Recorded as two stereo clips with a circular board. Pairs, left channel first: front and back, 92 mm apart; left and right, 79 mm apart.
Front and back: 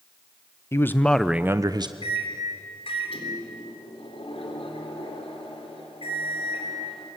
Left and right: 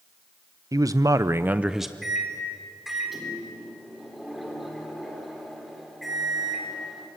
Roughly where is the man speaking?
Ahead right.